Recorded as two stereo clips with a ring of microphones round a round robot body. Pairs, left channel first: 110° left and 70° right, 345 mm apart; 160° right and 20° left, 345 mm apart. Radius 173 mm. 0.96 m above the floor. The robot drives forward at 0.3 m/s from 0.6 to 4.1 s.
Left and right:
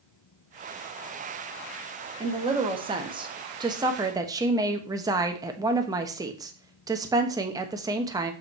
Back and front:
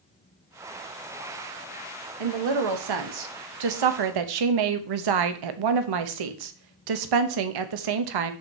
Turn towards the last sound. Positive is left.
turn(degrees=10)